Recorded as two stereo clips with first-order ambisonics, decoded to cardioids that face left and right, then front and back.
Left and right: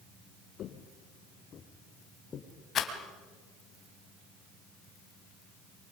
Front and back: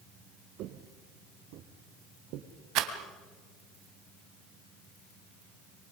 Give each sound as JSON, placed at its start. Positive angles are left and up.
{"t": 0.6, "sound": "footsteps", "azimuth_deg": 140, "distance_m": 1.7}
{"t": 2.8, "sound": "a rattle", "azimuth_deg": 150, "distance_m": 2.5}